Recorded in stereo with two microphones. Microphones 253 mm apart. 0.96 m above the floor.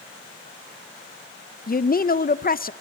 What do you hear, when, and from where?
1.7 s a woman speaking: 35° left (ahead or behind), 0.5 m